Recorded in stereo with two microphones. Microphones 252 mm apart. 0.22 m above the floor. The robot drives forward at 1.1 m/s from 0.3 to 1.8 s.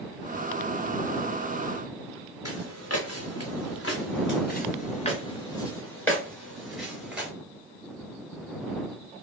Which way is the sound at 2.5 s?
80° left.